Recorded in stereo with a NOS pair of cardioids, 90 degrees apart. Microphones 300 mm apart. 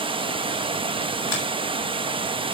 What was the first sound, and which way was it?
Running water, 15° right.